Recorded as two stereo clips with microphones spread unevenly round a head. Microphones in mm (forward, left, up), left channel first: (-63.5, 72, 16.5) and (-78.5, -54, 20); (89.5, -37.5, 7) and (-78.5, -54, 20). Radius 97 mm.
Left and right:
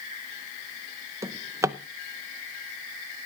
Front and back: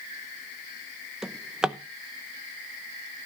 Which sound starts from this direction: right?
A drawer, at 1.2 s.